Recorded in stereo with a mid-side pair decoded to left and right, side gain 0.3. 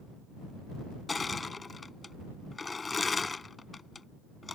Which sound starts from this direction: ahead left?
Crushing, at 1.1 s.